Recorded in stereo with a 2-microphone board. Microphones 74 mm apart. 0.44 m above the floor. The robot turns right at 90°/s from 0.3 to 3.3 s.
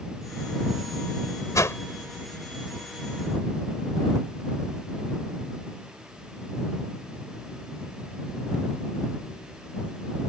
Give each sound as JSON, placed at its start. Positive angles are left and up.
{"t": 1.6, "sound": "a whoosh", "side_deg": 50}